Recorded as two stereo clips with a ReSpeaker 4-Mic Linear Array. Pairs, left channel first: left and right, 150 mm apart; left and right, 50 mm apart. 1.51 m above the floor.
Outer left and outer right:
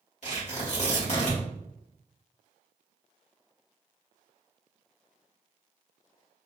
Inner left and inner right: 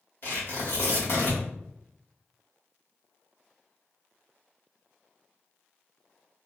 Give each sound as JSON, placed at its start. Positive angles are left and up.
{"t": 0.2, "sound": "tearing paper", "side_deg": 55, "distance_m": 1.9}